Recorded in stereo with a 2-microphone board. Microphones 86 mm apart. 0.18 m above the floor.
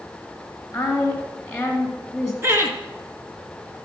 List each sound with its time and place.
0.7 s a woman speaking: 10° left (ahead or behind), 1.7 m
2.4 s laughter: 30° right (ahead or behind), 2 m